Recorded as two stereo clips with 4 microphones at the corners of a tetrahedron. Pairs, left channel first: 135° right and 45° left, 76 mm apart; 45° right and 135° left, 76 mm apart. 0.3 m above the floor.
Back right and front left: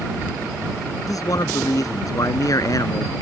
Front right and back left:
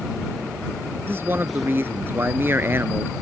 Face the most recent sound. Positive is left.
turn(degrees=-170)